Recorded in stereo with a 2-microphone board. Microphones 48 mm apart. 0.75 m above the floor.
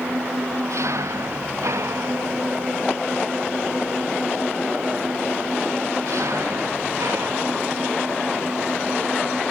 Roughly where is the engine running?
Right.